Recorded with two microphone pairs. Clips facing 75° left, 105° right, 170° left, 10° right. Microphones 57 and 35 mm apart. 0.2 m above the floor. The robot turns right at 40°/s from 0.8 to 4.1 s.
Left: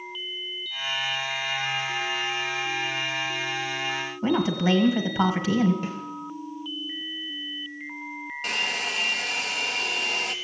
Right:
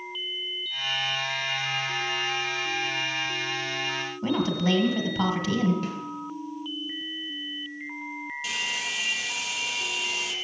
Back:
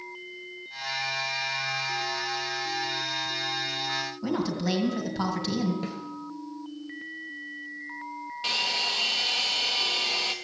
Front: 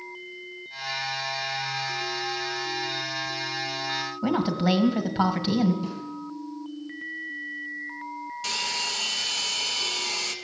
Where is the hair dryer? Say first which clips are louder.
Left 4 dB, back 2 dB; 115° left, 1.1 m.